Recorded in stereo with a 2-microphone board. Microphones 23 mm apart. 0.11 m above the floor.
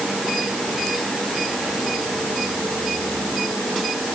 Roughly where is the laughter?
I don't hear laughter.